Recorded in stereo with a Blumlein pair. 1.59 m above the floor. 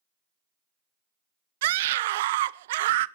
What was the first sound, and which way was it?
A scream, 55° right.